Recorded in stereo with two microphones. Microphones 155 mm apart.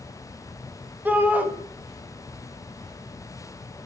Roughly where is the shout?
Centre.